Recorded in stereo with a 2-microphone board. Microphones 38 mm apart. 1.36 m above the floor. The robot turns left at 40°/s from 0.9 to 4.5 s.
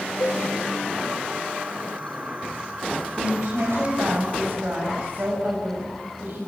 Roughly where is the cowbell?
Left.